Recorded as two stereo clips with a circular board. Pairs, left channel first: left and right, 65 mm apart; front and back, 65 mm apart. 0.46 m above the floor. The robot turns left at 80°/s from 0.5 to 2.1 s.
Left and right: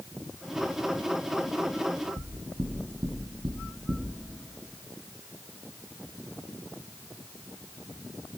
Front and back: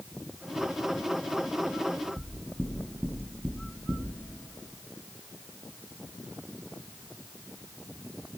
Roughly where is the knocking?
Right.